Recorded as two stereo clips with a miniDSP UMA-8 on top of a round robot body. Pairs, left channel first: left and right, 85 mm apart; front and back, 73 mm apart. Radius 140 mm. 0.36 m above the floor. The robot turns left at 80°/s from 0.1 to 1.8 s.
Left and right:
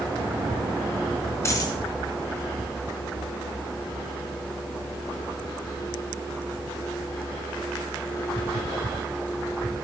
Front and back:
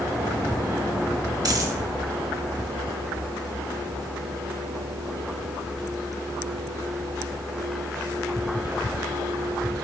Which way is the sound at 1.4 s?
150° left.